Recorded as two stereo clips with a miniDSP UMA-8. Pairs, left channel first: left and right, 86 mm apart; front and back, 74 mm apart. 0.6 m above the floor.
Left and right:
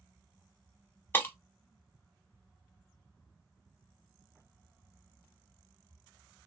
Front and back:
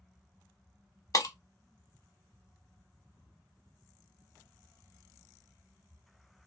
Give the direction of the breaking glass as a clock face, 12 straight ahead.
11 o'clock.